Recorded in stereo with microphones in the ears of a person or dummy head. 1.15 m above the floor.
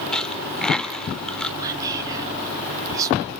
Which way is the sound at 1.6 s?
15° right (ahead or behind).